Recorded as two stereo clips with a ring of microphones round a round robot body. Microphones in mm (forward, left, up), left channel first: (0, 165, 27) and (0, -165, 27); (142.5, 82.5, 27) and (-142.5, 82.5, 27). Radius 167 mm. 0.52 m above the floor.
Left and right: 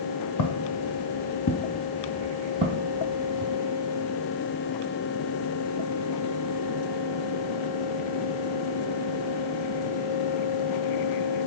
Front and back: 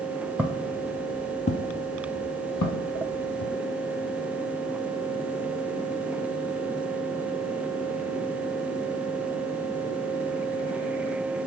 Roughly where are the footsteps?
Left.